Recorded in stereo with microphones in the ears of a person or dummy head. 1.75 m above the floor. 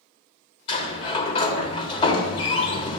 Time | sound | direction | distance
0.7 | a sliding door | 35° left (ahead or behind) | 1.1 m